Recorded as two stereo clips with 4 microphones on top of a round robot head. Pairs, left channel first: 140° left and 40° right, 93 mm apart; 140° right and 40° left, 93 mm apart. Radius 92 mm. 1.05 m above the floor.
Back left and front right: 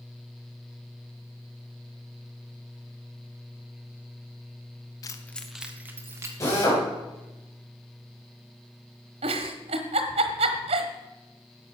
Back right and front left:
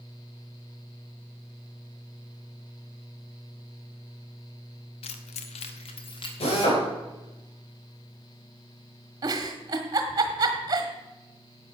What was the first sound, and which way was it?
Keys jangling, 165° right.